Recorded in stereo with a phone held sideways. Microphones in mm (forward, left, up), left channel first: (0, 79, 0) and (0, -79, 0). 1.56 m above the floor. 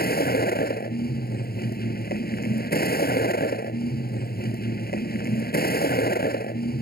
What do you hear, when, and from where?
0.0 s a vehicle: 75° left (ahead or behind)